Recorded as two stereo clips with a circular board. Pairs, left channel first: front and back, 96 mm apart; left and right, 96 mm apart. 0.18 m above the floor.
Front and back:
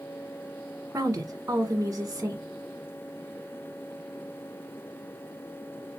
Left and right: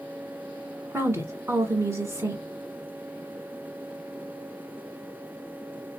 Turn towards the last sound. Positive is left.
turn(degrees=-135)